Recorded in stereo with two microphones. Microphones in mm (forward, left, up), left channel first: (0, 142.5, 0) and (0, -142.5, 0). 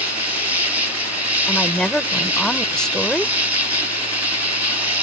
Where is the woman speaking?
5° left (ahead or behind).